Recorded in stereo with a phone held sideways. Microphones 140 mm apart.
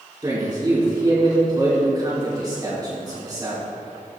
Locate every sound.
0.2 s a man speaking: 25° right (ahead or behind), 3.5 m